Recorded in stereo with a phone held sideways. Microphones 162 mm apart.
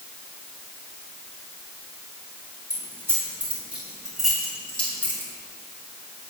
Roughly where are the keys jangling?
Centre.